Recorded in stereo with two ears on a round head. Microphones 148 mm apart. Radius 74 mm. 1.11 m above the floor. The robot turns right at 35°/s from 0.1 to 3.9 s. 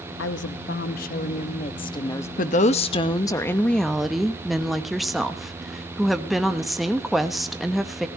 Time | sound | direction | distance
0.2 | a woman speaking | 90° left | 1.2 m
2.4 | a woman speaking | 130° left | 1.2 m